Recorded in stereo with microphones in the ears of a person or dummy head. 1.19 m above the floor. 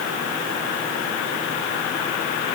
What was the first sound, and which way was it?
Only background noise.